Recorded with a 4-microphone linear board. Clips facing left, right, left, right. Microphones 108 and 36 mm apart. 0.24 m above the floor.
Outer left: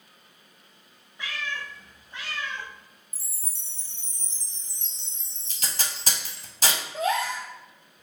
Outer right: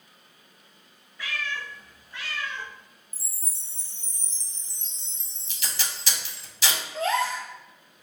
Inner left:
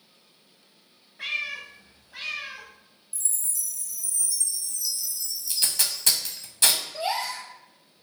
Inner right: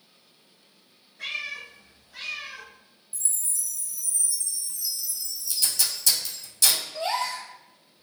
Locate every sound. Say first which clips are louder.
1.2 s a cat meowing: outer right 1 dB, inner left 2 dB; 25° left (ahead or behind), 0.7 m
3.1 s a chime: outer right 1 dB, inner right 1 dB; 20° right (ahead or behind), 1.3 m
5.5 s tape being pulled: outer left 1 dB, even; 45° left (ahead or behind), 0.5 m
6.9 s a gasp: outer right 1 dB, inner right 1 dB; 10° left (ahead or behind), 0.9 m